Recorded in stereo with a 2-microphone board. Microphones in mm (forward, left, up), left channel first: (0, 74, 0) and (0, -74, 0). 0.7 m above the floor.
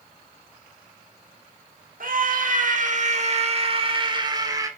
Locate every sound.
2.0 s a scream: 70° right (ahead or behind), 1.7 m; by 4.7 s 25° right (ahead or behind), 1.8 m